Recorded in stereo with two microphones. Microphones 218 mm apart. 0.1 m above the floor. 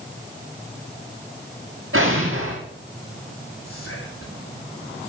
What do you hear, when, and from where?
1.9 s an explosion: 80° right, 8 m
3.6 s whispering: 80° left, 7 m